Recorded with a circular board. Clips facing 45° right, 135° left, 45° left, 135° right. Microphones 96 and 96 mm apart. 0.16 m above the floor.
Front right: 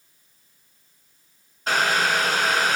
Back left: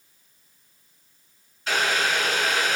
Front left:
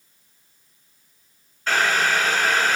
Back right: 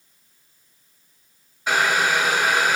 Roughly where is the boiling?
Ahead right.